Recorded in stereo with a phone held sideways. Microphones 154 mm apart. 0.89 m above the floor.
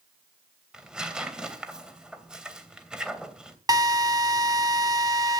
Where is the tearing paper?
5° right (ahead or behind), 2.5 m.